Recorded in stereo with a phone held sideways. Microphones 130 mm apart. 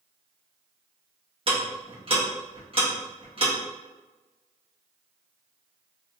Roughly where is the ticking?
Right.